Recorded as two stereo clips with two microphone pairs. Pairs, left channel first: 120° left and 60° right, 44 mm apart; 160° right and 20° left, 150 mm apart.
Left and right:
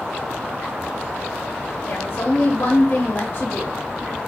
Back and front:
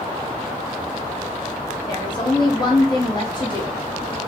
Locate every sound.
1.9 s a woman speaking: 140° left, 1.0 m